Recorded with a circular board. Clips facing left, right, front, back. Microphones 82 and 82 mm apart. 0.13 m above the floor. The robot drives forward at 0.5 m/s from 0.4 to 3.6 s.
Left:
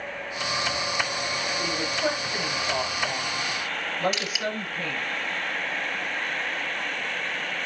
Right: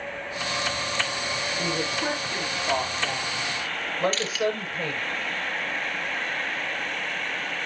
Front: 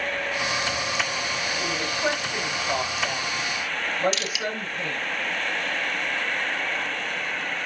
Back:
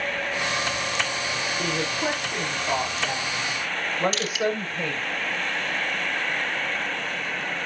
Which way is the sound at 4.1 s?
165° left.